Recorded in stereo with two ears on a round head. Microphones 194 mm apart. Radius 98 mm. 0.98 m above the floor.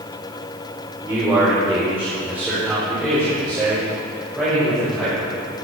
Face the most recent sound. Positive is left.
turn(degrees=-5)  # may be behind; listen again after turning